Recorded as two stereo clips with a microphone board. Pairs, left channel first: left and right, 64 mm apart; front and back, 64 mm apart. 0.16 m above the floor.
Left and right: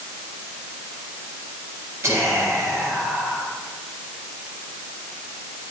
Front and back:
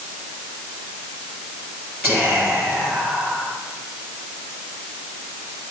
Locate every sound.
2.0 s whispering: 130° right, 3 m